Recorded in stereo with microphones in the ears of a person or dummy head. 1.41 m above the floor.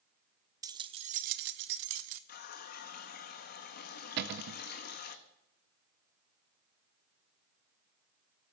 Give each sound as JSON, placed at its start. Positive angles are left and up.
{"t": 0.6, "sound": "keys jangling", "side_deg": -15, "distance_m": 0.6}
{"t": 2.3, "sound": "a running tap", "side_deg": 50, "distance_m": 1.3}
{"t": 4.2, "sound": "a cupboard door", "side_deg": -55, "distance_m": 0.6}